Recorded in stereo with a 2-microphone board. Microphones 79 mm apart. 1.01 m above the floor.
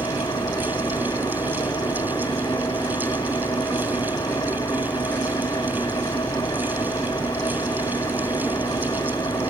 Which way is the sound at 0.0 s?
55° left (ahead or behind).